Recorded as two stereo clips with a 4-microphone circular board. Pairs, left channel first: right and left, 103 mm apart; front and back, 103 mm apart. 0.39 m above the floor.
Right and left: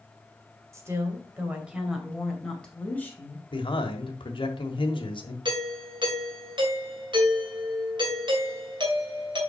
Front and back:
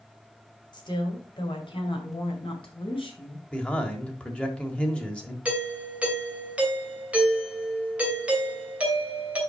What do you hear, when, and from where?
0.7 s a woman speaking: 35° left, 2.5 m; by 3.4 s 25° right, 2.5 m
3.5 s a man speaking: 80° right, 1.3 m
5.5 s a doorbell: 105° left, 2.5 m